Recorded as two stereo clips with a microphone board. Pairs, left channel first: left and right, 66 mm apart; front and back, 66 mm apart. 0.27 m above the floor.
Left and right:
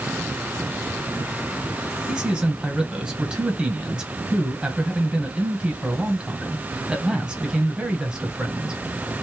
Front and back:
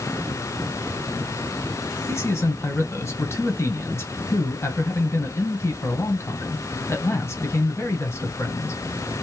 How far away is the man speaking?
About 1.7 m.